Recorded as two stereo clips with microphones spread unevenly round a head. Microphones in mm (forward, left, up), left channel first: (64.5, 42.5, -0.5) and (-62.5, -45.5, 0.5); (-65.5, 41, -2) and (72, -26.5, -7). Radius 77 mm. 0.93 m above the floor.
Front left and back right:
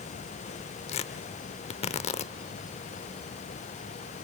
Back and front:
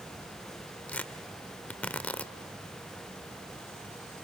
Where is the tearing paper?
75° left, 0.8 m.